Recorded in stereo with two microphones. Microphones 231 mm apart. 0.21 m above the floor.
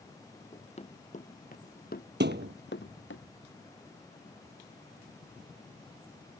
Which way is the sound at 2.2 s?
55° right (ahead or behind).